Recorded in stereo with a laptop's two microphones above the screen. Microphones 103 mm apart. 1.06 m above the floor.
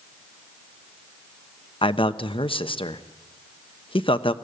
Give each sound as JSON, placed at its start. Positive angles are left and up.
{"t": 1.8, "sound": "a man speaking", "side_deg": 55, "distance_m": 0.9}